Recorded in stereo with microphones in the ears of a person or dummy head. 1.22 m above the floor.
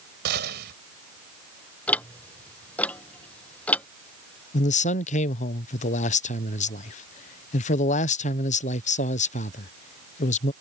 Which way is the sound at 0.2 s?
65° right (ahead or behind).